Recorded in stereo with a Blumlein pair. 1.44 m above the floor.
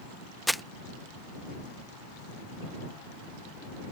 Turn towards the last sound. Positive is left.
turn(degrees=0)